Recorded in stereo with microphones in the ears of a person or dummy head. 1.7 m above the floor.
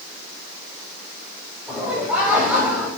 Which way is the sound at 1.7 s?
10° right (ahead or behind).